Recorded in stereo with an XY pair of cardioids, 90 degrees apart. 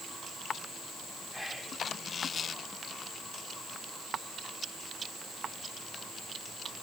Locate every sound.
1.3 s whispering: 15° left, 3.5 m